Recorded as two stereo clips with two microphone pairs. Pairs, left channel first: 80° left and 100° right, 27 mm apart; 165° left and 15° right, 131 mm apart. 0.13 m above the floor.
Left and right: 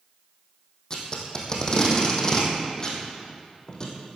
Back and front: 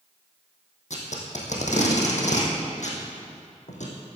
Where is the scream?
No scream in this recording.